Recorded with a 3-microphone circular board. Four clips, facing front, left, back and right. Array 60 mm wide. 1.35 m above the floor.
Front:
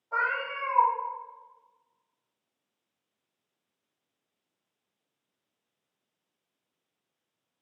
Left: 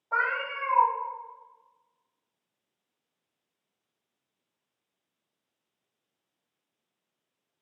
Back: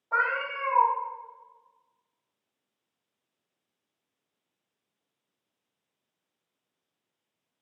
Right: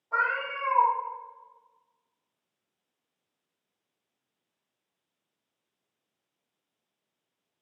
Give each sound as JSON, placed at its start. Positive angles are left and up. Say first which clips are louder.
{"t": 0.1, "sound": "a cat meowing", "louder": "even, back 2 dB", "azimuth_deg": 135, "distance_m": 0.8}